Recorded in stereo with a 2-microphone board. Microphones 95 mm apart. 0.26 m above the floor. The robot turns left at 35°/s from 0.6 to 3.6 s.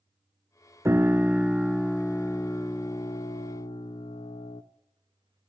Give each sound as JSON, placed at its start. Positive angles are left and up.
{"t": 0.8, "sound": "a piano", "azimuth_deg": -150, "distance_m": 0.7}